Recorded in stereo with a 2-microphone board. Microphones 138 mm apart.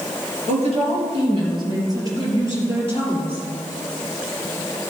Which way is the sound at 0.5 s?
50° right (ahead or behind).